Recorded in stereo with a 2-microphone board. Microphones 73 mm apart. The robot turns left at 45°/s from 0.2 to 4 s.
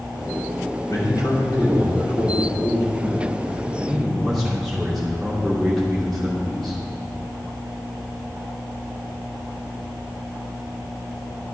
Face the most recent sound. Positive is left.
turn(degrees=0)